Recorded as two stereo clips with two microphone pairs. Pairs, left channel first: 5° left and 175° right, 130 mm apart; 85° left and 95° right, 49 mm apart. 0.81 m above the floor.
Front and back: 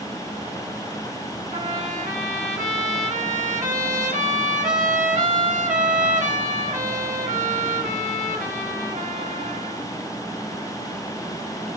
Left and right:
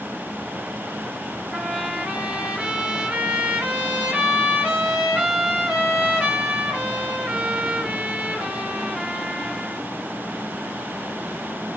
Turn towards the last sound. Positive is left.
turn(degrees=-165)